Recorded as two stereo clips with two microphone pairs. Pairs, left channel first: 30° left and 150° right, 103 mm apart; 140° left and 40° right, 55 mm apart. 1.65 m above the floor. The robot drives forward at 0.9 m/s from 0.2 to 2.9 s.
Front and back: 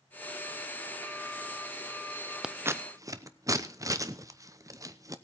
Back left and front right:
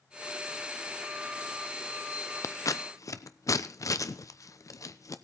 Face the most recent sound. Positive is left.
turn(degrees=155)